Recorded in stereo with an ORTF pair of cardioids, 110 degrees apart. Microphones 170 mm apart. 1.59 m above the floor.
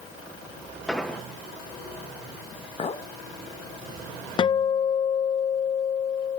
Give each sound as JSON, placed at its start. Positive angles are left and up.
{"t": 0.9, "sound": "an explosion", "azimuth_deg": 0, "distance_m": 1.5}
{"t": 2.8, "sound": "a clink", "azimuth_deg": 40, "distance_m": 1.6}
{"t": 4.4, "sound": "a guitar", "azimuth_deg": 30, "distance_m": 0.5}